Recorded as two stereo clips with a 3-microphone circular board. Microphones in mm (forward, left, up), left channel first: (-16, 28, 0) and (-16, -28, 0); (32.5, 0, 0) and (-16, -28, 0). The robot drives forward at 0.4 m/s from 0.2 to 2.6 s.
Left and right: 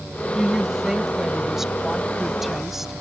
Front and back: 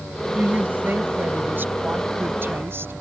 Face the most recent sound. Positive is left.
turn(degrees=-175)